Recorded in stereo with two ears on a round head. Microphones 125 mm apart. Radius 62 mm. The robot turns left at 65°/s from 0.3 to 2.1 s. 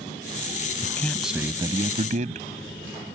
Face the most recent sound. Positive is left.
turn(degrees=-60)